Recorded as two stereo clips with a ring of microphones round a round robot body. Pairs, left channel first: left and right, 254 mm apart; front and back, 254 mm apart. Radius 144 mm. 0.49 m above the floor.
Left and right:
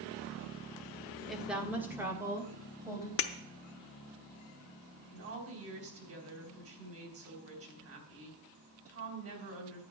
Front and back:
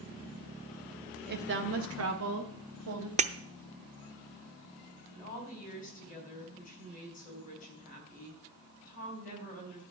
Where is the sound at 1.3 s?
Straight behind, 1.2 m; by 3.1 s 170° right, 3 m.